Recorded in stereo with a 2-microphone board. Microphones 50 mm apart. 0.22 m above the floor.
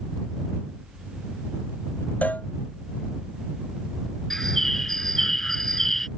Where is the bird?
5° left (ahead or behind).